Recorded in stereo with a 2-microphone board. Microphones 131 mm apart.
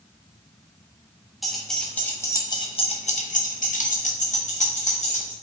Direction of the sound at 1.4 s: Centre (ahead or behind).